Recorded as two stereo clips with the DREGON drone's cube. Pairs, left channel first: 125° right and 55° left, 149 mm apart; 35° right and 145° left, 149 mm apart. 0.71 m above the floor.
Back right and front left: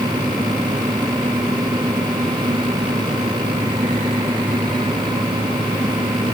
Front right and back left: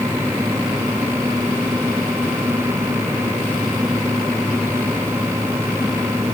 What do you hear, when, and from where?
Only background noise.